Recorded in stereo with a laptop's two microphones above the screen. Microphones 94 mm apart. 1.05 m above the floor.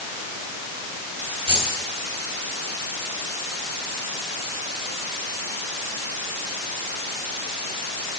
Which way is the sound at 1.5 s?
70° right (ahead or behind).